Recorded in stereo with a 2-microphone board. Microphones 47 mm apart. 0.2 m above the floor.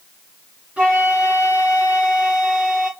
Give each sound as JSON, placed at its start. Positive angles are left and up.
{"t": 0.8, "sound": "a flute", "side_deg": -20, "distance_m": 4.5}